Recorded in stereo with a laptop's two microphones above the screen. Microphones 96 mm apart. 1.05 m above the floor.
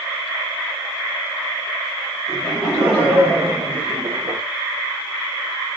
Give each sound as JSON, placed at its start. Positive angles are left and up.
{"t": 2.3, "sound": "laughter", "side_deg": 0, "distance_m": 2.0}